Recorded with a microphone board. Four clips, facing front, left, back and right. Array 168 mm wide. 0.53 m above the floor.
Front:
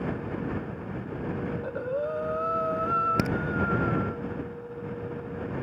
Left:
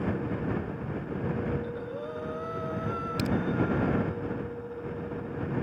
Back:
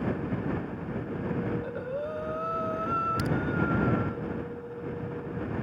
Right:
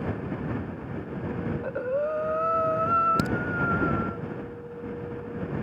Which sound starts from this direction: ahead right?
A crack, at 3.2 s.